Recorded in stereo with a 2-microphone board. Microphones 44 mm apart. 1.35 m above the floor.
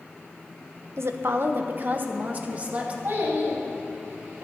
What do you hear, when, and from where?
1.0 s a woman speaking: 75° right (ahead or behind), 0.9 m; by 2.9 s 30° right (ahead or behind), 2.0 m
3.0 s a child speaking: 60° right (ahead or behind), 5.5 m